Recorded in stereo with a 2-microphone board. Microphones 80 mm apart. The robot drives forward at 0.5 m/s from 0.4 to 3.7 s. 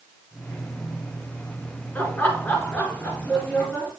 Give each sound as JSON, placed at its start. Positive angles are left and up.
{"t": 1.9, "sound": "laughter", "side_deg": 20, "distance_m": 1.9}